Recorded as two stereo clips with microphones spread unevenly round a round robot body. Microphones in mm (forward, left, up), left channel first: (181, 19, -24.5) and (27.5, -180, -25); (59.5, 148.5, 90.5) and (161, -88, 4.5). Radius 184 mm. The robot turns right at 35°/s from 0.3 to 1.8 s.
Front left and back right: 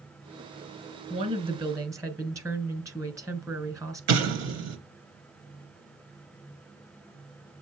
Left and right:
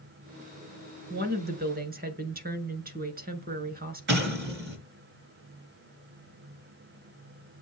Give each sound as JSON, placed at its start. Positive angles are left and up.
{"t": 1.1, "sound": "a woman speaking", "azimuth_deg": -80, "distance_m": 2.0}
{"t": 4.1, "sound": "an explosion", "azimuth_deg": -115, "distance_m": 2.5}